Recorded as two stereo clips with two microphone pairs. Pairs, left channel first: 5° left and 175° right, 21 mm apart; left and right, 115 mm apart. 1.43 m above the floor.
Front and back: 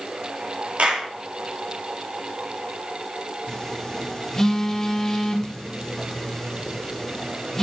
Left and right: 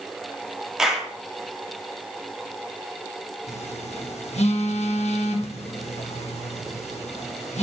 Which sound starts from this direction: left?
A phone buzzing, at 3.5 s.